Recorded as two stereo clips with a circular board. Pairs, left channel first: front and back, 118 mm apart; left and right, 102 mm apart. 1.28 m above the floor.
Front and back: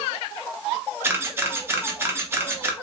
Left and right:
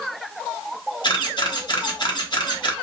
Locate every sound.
1.0 s a camera shutter: 115° left, 0.7 m